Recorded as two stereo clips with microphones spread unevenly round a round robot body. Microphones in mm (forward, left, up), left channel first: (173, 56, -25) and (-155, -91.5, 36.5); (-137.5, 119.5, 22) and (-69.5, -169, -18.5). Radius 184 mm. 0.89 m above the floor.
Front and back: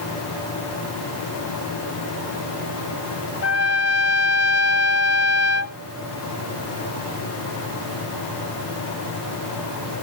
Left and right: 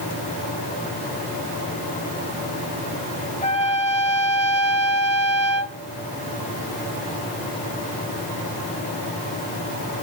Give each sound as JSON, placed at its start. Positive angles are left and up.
{"t": 3.4, "sound": "a trumpet", "azimuth_deg": 65, "distance_m": 0.8}